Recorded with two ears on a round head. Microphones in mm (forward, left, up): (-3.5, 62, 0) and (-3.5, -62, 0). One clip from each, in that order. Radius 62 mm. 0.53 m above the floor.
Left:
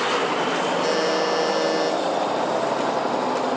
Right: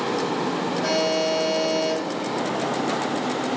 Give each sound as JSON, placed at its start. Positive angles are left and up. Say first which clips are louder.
{"t": 0.8, "sound": "a buzzer", "louder": "left 1 dB", "side_deg": 70, "distance_m": 2.5}